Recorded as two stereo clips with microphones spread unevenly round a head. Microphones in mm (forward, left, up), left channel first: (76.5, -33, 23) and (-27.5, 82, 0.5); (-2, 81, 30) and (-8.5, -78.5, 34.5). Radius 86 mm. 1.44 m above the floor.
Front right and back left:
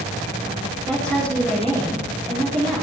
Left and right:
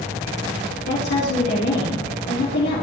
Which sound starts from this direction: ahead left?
A woman speaking, at 0.9 s.